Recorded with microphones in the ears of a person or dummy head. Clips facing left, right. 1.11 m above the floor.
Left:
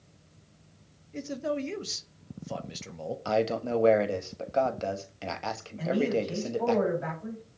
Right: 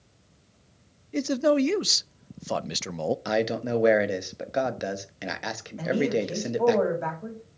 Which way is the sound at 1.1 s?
70° right (ahead or behind).